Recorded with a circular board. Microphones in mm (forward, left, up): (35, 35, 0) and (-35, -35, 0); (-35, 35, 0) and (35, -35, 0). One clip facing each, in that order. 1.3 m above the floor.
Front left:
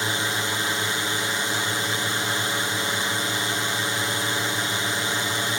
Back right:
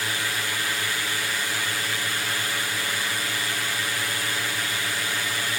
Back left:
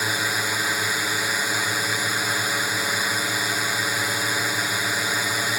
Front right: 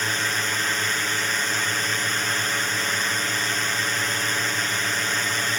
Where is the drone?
70° left.